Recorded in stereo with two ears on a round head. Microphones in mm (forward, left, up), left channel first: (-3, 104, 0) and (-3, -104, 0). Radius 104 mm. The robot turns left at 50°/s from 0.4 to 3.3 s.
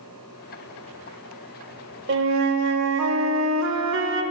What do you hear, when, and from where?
2.1 s a flute: 55° right, 0.5 m; by 4.2 s 115° right, 0.5 m